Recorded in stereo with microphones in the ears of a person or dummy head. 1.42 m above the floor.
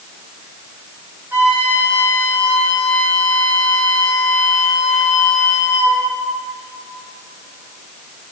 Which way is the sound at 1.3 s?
5° right (ahead or behind).